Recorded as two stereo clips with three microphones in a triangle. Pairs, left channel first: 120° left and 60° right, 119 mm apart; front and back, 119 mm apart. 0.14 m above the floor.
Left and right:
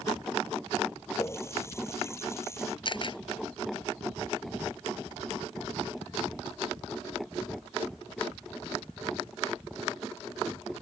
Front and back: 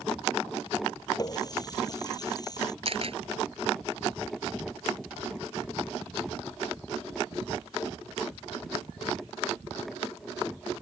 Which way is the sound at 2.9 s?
160° left.